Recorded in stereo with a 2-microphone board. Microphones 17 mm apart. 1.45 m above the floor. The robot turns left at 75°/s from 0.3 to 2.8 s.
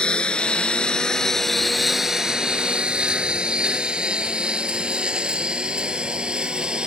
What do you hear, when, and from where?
0.0 s a lawn mower: 75° left (ahead or behind); by 6.9 s 65° right (ahead or behind)